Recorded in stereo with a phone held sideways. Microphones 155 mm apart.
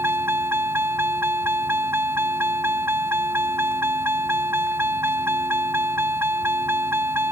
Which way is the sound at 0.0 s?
15° right (ahead or behind).